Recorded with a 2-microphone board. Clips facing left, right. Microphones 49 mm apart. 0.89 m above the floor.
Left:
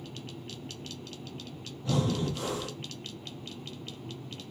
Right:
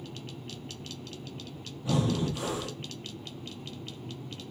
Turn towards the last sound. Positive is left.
turn(degrees=-15)  # may be behind; listen again after turning